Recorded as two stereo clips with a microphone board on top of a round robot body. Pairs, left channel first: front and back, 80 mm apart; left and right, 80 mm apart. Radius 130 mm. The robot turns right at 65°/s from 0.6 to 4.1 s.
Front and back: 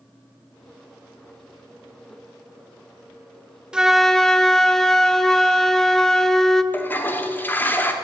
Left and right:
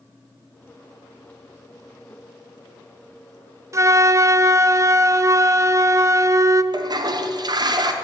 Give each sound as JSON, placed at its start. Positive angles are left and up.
{"t": 3.7, "sound": "a flute", "azimuth_deg": -105, "distance_m": 0.6}
{"t": 6.7, "sound": "a toilet flushing", "azimuth_deg": -65, "distance_m": 1.1}